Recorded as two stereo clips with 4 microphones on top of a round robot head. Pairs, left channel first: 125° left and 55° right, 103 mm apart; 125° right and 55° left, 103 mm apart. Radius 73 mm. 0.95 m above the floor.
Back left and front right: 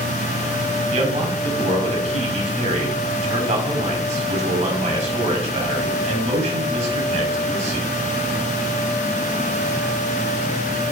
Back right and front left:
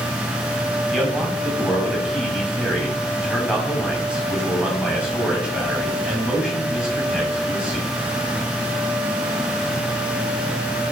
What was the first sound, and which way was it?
A man speaking, 25° right.